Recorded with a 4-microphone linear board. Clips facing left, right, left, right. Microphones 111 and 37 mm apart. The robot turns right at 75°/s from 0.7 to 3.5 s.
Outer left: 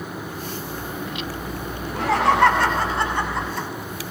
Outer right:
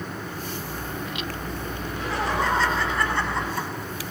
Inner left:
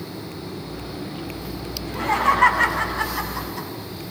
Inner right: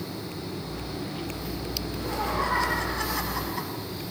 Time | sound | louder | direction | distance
1.8 | laughter | outer left 9 dB, inner left 12 dB | 65° left | 8 m